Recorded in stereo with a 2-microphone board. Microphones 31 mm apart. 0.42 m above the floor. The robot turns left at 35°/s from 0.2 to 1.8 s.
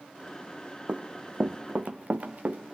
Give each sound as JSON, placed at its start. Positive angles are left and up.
{"t": 0.9, "sound": "running footsteps", "side_deg": -45, "distance_m": 1.1}